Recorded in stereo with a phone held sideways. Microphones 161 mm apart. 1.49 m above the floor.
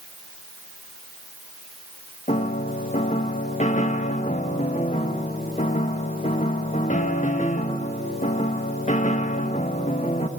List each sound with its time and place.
2.3 s a piano: 50° left (ahead or behind), 1.3 m